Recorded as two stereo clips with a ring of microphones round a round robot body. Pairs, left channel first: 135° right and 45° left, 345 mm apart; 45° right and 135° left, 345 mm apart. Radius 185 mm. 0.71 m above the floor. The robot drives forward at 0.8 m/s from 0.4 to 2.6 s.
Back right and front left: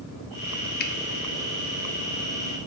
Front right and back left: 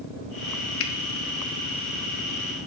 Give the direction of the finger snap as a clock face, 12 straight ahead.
3 o'clock.